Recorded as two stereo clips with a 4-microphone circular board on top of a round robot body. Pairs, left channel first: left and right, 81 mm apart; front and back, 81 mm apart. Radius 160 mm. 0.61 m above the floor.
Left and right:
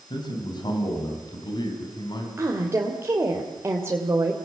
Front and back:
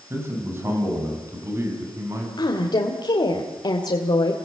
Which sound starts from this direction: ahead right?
A woman speaking, at 2.4 s.